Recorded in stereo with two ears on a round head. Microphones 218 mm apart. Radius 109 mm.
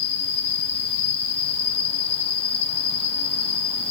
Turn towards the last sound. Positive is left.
turn(degrees=25)  # may be behind; listen again after turning